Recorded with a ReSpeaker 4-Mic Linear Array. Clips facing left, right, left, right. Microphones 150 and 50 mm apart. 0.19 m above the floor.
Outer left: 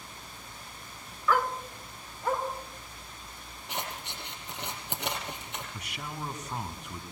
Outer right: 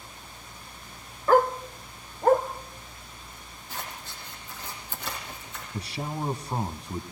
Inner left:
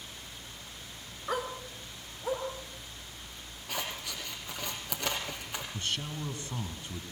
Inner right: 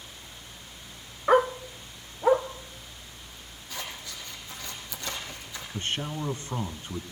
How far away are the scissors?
About 5 m.